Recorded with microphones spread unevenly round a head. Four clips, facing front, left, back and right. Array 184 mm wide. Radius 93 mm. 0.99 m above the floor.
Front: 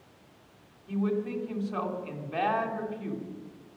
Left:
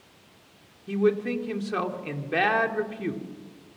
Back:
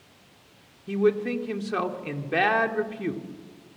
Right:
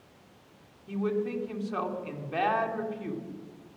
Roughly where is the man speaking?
Behind left.